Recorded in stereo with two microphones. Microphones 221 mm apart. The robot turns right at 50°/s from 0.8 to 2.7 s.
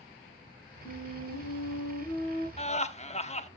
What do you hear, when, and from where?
0.8 s a flute: 55° left, 7 m; by 2.5 s 135° left, 7 m
2.6 s laughter: 30° left (ahead or behind), 0.8 m